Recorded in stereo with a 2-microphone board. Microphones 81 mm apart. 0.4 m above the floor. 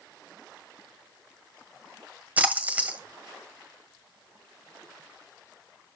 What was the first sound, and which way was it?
A splash, 20° right (ahead or behind).